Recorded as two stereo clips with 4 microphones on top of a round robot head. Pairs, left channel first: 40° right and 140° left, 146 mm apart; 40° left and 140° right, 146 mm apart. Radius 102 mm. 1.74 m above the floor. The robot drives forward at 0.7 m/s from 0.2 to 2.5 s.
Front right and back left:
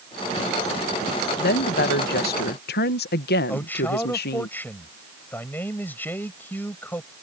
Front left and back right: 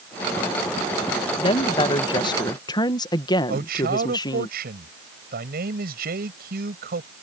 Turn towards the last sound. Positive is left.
turn(degrees=-115)